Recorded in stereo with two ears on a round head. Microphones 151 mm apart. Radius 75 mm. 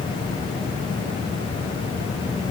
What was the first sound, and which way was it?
Only background noise.